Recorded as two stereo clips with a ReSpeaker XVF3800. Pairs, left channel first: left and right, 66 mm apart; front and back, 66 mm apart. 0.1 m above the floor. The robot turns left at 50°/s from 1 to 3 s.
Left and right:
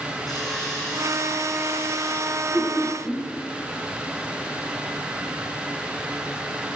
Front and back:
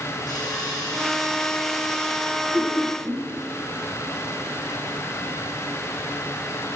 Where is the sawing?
5° left, 5.5 m; by 2.2 s 55° right, 5.5 m.